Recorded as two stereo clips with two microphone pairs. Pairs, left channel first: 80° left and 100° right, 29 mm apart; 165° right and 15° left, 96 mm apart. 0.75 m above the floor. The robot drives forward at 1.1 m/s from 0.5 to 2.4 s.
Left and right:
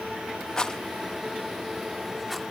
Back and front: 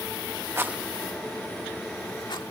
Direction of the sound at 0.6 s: 50° left.